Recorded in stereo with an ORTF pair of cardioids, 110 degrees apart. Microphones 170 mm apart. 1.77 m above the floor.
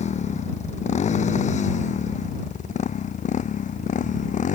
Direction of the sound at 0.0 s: 45° left.